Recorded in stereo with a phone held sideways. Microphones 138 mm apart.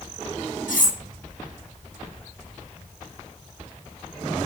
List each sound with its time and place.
0.7 s cutlery clinking: 70° left (ahead or behind), 1.4 m